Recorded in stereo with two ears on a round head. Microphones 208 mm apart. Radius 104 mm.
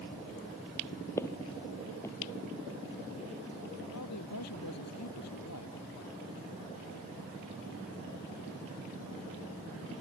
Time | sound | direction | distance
1.2 | footsteps | 10° left (ahead or behind) | ?
3.9 | a man speaking | 85° left | ?